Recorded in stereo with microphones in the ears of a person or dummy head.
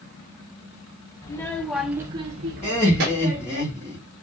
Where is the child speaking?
15° left (ahead or behind), 0.8 m; by 3.6 s 50° right (ahead or behind), 1.1 m.